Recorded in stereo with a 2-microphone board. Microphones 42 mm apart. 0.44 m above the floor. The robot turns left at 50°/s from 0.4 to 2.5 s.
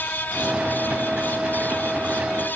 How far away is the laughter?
No laughter in this recording.